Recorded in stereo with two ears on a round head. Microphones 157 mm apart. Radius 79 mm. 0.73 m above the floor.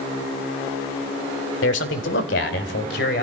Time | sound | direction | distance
1.6 | a man speaking | 75° left (ahead or behind) | 2 m